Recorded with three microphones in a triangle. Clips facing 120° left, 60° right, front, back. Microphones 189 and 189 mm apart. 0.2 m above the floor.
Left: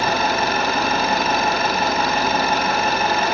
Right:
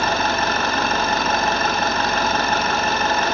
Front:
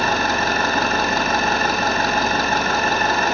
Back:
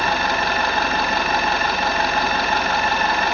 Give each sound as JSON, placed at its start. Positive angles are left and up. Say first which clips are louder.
{"t": 0.0, "sound": "an engine running", "louder": "left 1 dB, front 1 dB", "azimuth_deg": 40, "distance_m": 3.0}